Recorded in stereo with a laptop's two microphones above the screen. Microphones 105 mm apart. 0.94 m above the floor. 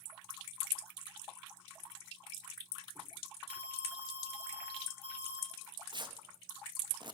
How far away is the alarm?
About 1.8 m.